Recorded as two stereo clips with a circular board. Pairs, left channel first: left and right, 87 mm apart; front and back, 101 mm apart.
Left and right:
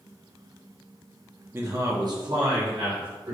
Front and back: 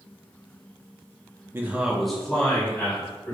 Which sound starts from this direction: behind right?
A man speaking, at 1.5 s.